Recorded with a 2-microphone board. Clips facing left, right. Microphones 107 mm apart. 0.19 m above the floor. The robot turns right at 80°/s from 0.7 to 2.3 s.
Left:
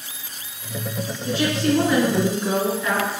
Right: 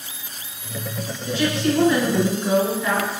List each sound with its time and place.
1.2 s a woman speaking: 100° left, 1.8 m; by 3.1 s 175° right, 1.8 m